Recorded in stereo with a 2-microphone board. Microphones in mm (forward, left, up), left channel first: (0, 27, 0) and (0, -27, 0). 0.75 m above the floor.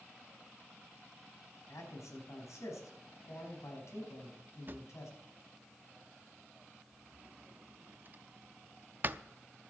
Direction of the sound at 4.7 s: 40° right (ahead or behind).